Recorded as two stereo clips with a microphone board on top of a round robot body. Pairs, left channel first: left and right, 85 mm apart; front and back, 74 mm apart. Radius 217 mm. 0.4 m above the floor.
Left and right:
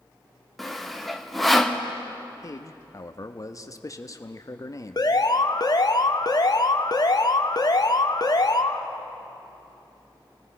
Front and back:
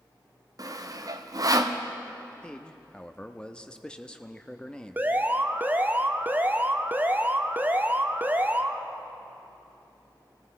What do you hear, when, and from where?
0.6 s sawing: straight behind, 1.5 m
2.4 s a man speaking: 75° left, 1.2 m
5.0 s an alarm: 120° left, 1.3 m